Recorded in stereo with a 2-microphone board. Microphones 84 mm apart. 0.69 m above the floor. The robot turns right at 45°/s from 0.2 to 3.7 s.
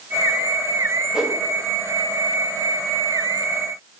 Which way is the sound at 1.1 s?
10° right (ahead or behind).